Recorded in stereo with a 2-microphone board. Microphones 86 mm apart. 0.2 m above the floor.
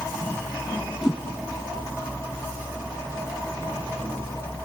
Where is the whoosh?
5° right (ahead or behind), 0.6 m.